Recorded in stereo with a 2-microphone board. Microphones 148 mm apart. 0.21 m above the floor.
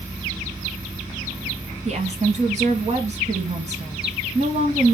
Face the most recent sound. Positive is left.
turn(degrees=-50)  # may be behind; listen again after turning